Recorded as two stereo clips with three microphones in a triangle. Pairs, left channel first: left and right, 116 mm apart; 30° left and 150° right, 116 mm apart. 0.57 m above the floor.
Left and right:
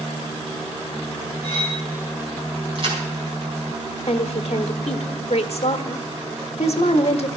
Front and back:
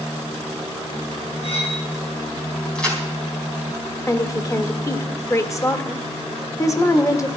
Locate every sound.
1.4 s cutlery clinking: 60° left, 4.5 m
2.8 s a crack: 50° right, 4 m
4.1 s a woman speaking: 85° left, 1.2 m